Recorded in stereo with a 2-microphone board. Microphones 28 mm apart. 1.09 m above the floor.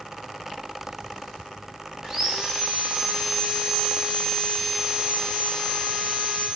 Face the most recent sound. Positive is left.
turn(degrees=-25)  # may be behind; listen again after turning